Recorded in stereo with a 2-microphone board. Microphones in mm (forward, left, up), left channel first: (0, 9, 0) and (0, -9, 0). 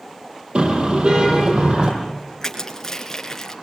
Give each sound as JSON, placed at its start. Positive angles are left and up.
{"t": 0.6, "sound": "a car horn", "side_deg": -70, "distance_m": 8.0}
{"t": 2.4, "sound": "crushing", "side_deg": 25, "distance_m": 4.0}